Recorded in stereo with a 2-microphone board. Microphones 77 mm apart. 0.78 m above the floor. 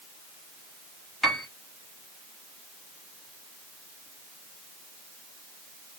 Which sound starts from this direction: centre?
A piano, at 1.2 s.